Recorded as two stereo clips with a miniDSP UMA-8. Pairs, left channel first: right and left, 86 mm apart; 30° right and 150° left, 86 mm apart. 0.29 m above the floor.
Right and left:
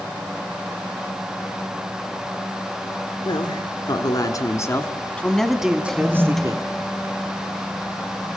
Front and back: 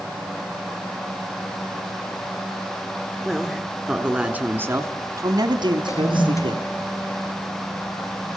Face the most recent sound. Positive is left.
turn(degrees=-5)